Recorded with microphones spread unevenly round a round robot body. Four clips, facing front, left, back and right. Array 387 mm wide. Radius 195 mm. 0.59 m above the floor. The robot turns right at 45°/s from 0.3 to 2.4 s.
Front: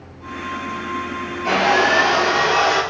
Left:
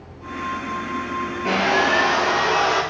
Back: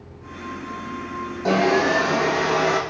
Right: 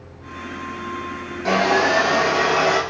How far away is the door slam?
No door slam in this recording.